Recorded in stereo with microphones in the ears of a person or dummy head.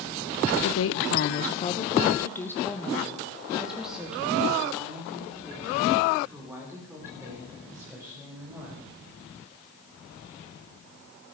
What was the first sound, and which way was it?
A woman speaking, 70° left (ahead or behind).